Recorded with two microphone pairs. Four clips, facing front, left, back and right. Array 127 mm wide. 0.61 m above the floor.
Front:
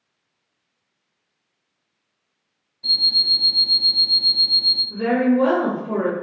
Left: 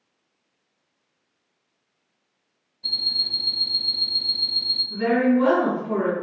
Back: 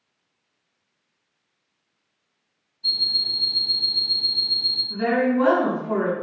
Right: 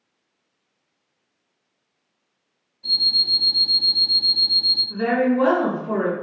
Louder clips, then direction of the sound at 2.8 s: Right 4 dB, front 4 dB; 5° left.